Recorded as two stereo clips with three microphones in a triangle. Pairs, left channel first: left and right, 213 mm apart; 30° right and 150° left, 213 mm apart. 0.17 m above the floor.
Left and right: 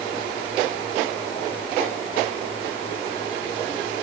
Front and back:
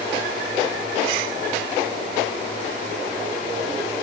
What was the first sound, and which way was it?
Only background noise.